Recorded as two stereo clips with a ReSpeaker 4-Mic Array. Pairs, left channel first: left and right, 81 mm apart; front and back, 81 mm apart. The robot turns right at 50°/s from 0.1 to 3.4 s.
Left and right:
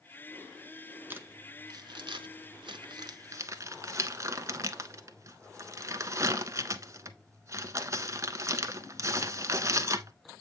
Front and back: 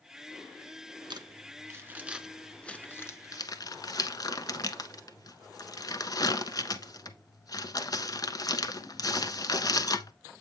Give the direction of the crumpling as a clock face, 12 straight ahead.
5 o'clock.